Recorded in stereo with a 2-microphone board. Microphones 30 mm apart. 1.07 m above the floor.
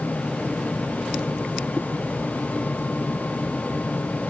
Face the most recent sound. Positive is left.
No sound to turn to.